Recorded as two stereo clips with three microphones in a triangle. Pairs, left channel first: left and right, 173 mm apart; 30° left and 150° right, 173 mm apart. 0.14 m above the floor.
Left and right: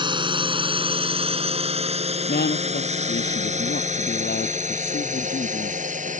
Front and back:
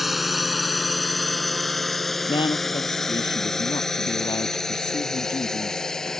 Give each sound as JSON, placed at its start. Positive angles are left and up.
{"t": 0.0, "sound": "a drone", "azimuth_deg": -60}
{"t": 2.3, "sound": "a woman speaking", "azimuth_deg": 90}